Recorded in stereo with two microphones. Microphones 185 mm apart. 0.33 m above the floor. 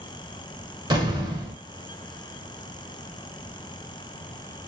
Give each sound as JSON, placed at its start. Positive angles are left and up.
{"t": 0.9, "sound": "an explosion", "side_deg": -20, "distance_m": 0.8}